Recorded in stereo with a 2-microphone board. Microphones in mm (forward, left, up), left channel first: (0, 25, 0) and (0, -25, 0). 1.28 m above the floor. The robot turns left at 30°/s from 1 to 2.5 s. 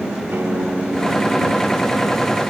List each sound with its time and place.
0.3 s a guitar: 135° right; by 2.4 s 175° right